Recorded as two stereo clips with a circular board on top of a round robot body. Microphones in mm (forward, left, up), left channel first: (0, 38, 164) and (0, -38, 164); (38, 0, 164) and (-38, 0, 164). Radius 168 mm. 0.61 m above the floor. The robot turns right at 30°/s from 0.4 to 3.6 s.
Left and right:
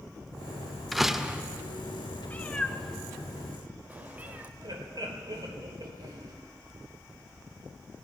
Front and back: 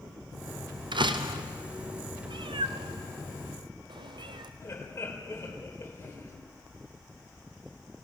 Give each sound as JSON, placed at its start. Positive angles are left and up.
{"t": 0.9, "sound": "a door slam", "azimuth_deg": 180, "distance_m": 1.3}
{"t": 2.3, "sound": "a cat meowing", "azimuth_deg": 160, "distance_m": 0.9}
{"t": 4.6, "sound": "laughter", "azimuth_deg": -55, "distance_m": 3.5}